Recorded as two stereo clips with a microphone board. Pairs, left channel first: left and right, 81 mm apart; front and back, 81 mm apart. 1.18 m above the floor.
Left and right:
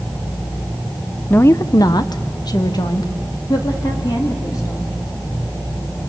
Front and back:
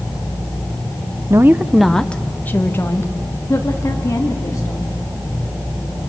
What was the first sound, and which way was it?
A woman speaking, 150° left.